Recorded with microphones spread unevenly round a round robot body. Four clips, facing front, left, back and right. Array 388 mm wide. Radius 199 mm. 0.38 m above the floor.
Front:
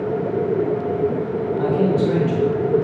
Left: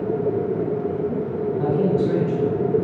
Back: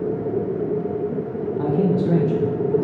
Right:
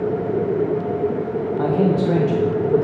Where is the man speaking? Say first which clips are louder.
Right 2 dB, front 1 dB; 140° right, 1.2 m.